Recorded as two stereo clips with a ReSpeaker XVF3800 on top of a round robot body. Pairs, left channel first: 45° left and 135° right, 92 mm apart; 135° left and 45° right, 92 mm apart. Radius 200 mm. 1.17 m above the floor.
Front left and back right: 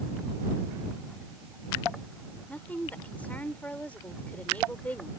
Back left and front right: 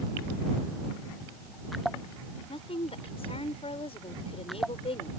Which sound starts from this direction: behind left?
A woman speaking, at 2.5 s.